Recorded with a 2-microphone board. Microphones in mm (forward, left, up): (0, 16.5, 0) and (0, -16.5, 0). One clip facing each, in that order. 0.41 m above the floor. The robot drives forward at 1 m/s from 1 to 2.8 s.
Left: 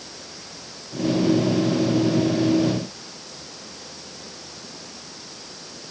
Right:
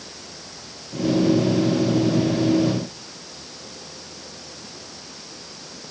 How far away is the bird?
No bird in this recording.